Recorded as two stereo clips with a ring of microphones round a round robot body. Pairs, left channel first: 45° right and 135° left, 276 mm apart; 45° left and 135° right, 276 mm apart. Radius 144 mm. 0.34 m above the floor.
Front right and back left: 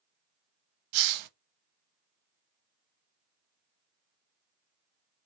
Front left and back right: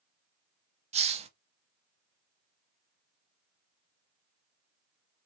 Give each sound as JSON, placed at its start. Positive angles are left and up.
{"t": 0.9, "sound": "a hiss", "azimuth_deg": 155, "distance_m": 0.5}